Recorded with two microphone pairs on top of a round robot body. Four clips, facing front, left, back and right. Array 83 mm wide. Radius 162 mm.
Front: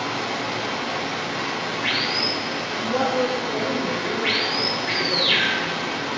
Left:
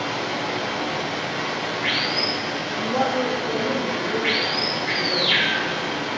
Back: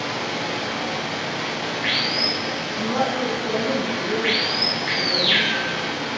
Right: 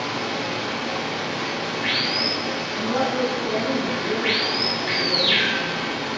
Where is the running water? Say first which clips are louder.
Left 1 dB, even; 145° left, 1.7 m.